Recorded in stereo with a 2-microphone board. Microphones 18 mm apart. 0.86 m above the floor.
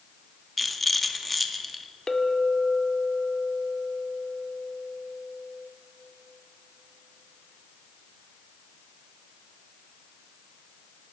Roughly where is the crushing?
I don't hear crushing.